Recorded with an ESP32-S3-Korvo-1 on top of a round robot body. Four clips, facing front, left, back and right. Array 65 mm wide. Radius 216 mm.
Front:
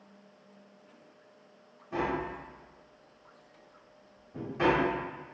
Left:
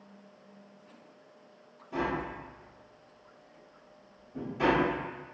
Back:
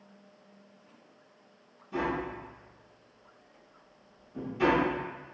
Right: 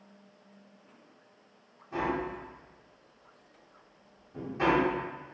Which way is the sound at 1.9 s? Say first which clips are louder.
Right 1 dB, even; 15° right.